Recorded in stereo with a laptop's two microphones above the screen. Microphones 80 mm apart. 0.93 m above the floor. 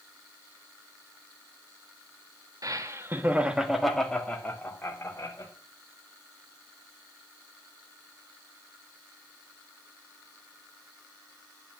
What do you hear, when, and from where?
2.6 s laughter: 50° right (ahead or behind), 1.9 m; by 5.5 s 35° left (ahead or behind), 4 m